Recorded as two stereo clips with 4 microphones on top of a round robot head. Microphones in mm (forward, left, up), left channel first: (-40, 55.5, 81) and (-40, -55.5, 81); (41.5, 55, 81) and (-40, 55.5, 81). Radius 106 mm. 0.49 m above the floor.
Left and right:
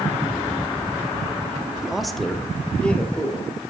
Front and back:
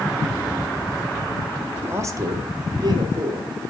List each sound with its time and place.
1.8 s a man speaking: 170° right, 0.8 m; by 3.5 s 165° left, 2 m